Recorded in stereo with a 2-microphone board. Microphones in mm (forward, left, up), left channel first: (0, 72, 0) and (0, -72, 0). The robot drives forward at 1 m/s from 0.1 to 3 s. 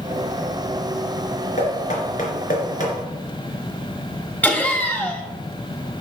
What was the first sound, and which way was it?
Knocking, 60° left (ahead or behind).